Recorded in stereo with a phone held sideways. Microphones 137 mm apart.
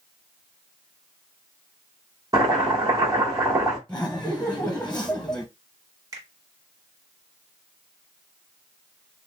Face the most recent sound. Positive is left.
turn(degrees=-25)  # may be behind; listen again after turning